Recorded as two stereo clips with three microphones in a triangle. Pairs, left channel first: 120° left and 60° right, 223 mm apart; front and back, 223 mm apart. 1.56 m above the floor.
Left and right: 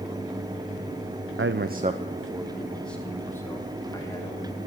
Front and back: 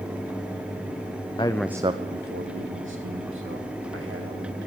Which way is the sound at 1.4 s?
70° right.